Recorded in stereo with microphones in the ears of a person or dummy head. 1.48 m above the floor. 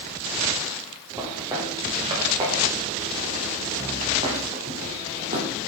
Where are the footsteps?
20° right (ahead or behind), 8 m; by 5.5 s 40° right (ahead or behind), 5.5 m.